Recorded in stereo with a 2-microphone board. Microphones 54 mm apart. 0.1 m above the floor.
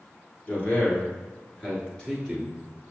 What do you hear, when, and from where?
0.5 s a man speaking: 35° left (ahead or behind), 1.5 m; by 2.6 s centre (ahead or behind), 1.6 m